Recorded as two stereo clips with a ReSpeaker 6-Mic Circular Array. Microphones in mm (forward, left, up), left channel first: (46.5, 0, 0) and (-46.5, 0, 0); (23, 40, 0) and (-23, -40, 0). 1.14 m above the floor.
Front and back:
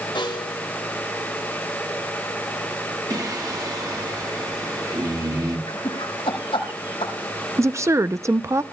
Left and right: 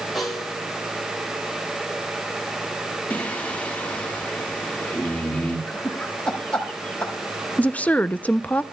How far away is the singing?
About 1.6 m.